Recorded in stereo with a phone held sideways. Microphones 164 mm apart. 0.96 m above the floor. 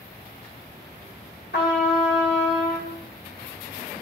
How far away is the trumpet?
About 2.5 m.